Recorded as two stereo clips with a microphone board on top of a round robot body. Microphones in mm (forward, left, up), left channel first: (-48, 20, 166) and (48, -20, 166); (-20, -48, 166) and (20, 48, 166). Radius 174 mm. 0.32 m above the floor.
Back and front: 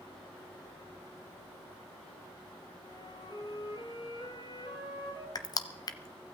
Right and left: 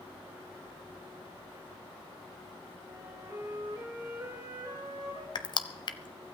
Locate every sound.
2.9 s a flute: 125° left, 8.5 m
5.3 s crushing: 155° right, 0.9 m